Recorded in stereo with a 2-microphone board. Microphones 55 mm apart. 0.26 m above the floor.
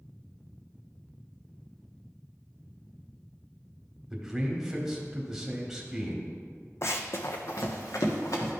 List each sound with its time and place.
4.1 s a man speaking: 10° right (ahead or behind), 1.3 m
6.8 s running footsteps: 55° left (ahead or behind), 0.6 m; by 8.5 s 70° left (ahead or behind), 2 m